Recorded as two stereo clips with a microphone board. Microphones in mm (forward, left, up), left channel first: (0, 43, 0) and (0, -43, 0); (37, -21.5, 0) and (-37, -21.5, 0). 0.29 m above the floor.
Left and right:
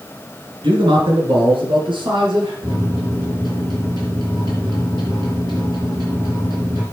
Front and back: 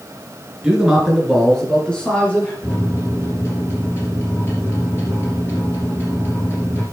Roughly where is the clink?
I don't hear a clink.